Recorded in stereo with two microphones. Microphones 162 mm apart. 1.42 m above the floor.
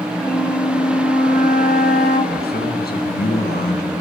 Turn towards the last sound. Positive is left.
turn(degrees=70)  # may be behind; listen again after turning